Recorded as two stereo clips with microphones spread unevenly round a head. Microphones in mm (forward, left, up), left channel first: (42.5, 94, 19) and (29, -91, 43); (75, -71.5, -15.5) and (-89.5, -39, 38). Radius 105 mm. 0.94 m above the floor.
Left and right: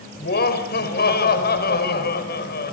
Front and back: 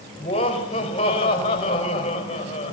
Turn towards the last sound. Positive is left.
turn(degrees=50)